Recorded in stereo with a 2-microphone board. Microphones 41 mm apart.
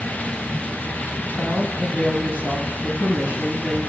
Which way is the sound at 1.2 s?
40° left (ahead or behind).